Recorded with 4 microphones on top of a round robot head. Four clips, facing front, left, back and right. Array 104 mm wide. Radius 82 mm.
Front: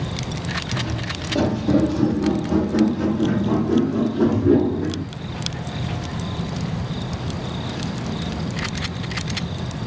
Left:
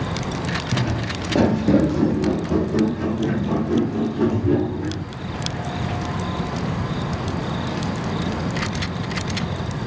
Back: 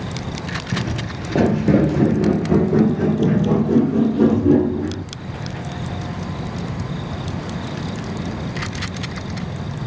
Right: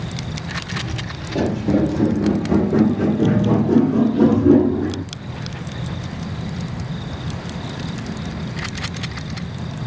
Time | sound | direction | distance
0.7 | footsteps | 125° left | 1.1 m